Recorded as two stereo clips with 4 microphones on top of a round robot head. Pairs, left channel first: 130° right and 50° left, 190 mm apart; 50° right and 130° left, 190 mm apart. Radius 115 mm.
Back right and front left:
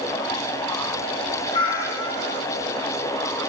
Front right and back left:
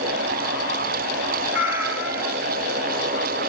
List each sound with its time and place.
1.5 s a cat meowing: 150° right, 1.7 m